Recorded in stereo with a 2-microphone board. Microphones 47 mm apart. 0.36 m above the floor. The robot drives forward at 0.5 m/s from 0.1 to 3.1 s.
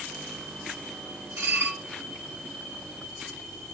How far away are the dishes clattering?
About 3 m.